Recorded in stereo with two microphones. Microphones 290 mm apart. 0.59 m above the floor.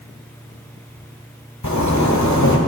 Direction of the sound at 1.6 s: 75° left (ahead or behind).